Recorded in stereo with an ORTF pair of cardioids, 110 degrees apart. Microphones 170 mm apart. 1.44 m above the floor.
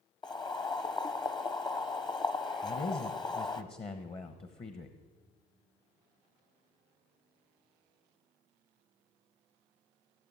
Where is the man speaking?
35° left, 1.1 m.